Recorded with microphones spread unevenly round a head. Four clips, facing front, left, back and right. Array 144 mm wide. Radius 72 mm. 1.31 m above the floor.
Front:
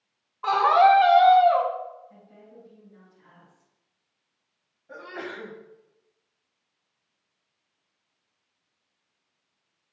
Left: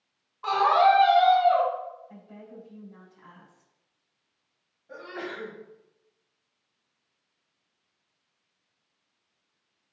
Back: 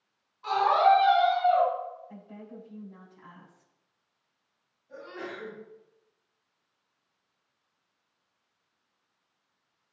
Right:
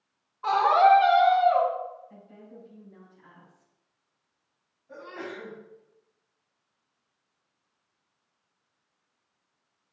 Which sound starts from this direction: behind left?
A woman speaking, at 2.1 s.